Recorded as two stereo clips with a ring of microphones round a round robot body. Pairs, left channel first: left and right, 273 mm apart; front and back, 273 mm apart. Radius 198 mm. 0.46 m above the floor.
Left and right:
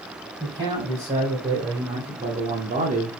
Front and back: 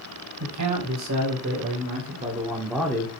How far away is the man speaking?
About 3.5 m.